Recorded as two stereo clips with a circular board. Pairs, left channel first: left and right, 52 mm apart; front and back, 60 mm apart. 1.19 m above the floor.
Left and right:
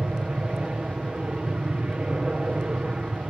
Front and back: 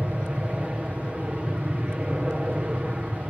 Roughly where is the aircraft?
Behind right.